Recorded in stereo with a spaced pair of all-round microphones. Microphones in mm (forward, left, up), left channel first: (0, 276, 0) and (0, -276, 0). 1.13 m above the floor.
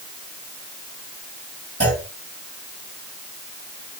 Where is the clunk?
25° right (ahead or behind), 6.5 m.